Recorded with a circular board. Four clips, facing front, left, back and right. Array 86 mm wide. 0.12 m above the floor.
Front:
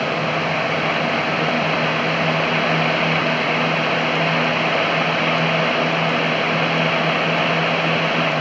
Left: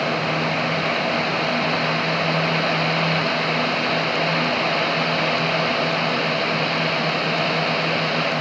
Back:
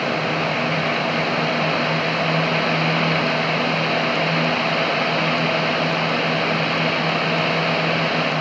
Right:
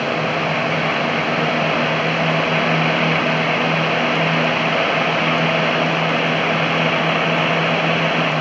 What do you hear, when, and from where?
Only background noise.